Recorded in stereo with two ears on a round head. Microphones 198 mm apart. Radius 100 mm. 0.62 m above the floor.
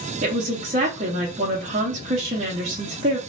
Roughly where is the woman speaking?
Right.